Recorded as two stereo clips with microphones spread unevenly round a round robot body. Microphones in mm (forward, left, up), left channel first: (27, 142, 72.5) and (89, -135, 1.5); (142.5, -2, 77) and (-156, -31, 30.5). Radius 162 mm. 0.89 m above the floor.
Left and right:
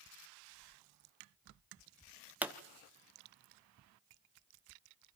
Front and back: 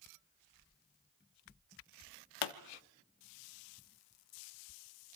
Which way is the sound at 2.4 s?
5° left.